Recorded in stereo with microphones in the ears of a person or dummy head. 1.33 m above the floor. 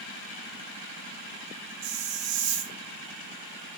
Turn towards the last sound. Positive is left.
turn(degrees=-70)  # may be behind; listen again after turning